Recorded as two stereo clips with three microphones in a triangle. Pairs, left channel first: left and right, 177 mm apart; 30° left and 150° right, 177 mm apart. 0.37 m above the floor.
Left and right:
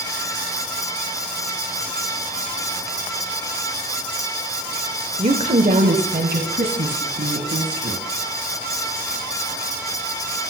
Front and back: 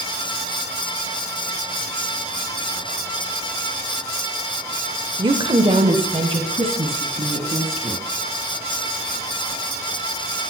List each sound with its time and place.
5.2 s a woman speaking: 110° right, 1.0 m; by 8.0 s 90° right, 4 m